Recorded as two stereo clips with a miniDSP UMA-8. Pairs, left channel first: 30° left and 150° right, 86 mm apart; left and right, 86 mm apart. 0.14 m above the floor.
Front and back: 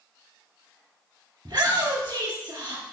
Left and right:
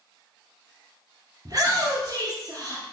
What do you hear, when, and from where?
1.4 s a shout: 125° right, 1.9 m